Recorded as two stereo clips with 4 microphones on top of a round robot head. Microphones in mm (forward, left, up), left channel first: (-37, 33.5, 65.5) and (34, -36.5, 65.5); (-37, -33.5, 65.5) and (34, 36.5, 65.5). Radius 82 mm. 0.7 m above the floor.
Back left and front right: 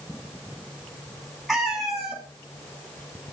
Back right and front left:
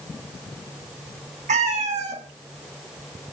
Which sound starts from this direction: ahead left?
A cat meowing, at 1.5 s.